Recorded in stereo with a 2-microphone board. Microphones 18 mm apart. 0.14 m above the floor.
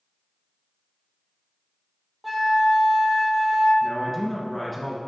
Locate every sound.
2.2 s a flute: centre (ahead or behind), 1.2 m
3.8 s a man speaking: 10° left (ahead or behind), 1.5 m